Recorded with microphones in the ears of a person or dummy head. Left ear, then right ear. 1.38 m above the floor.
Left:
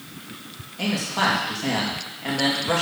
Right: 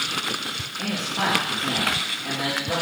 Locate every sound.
0.8 s a man speaking: 45° left (ahead or behind), 2 m